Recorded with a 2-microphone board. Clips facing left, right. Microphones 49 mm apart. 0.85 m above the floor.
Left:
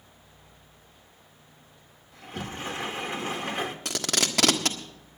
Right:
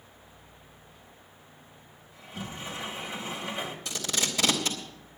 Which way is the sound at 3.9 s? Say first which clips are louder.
Left 2 dB; 75° left (ahead or behind).